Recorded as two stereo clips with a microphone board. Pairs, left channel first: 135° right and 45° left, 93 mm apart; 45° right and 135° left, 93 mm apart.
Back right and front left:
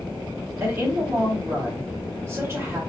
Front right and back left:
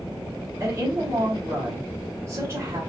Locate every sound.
0.6 s a woman speaking: 90° left, 1.8 m